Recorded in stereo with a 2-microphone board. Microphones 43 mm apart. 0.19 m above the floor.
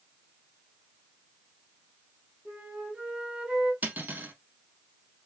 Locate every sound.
2.5 s a flute: 30° right (ahead or behind), 1.8 m
3.8 s cutlery clinking: 45° right (ahead or behind), 1.0 m